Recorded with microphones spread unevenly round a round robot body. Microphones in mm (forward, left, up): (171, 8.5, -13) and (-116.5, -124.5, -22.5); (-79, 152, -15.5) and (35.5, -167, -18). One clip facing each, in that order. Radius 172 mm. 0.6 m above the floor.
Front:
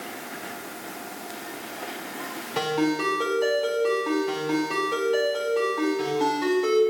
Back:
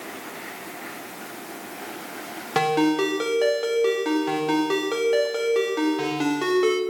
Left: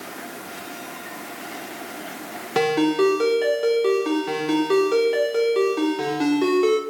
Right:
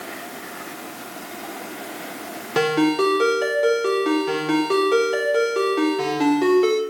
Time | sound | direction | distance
2.5 | a ringtone | 165° right | 1.3 m